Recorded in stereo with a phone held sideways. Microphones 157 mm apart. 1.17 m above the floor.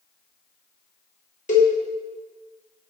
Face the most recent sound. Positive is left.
turn(degrees=50)  # may be behind; listen again after turning